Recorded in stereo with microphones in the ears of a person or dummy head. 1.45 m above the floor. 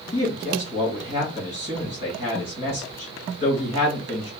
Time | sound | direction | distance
0.1 | a man speaking | 45° left (ahead or behind) | 2.5 m